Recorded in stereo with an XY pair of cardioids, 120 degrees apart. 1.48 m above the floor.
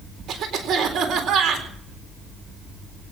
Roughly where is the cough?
Ahead right.